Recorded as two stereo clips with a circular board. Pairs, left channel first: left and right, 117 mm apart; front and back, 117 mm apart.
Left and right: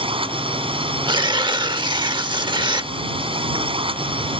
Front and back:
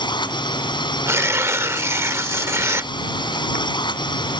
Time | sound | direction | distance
0.0 | a drone | 50° right | ?
1.1 | tearing paper | 120° right | ?